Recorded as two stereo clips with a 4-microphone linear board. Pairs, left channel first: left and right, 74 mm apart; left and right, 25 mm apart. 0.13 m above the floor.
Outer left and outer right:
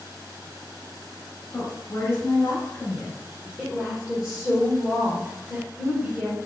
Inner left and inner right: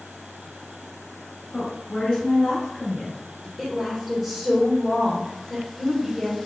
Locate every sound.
1.5 s a woman speaking: 35° left (ahead or behind), 1.7 m
3.6 s a woman speaking: 15° right (ahead or behind), 1.2 m